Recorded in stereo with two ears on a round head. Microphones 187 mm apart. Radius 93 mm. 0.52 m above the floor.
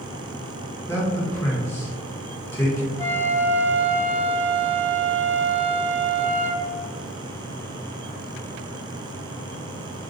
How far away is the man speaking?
About 0.9 m.